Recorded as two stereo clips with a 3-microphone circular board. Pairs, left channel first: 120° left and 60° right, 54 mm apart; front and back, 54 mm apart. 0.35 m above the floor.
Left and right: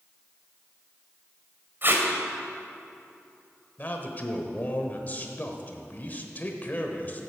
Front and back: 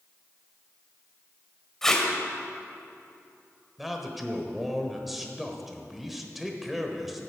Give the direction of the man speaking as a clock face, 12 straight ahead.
9 o'clock.